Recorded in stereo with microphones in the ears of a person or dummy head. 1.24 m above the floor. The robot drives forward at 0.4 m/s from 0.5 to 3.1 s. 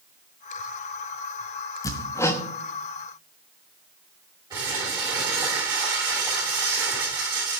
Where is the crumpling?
25° right (ahead or behind), 6.5 m.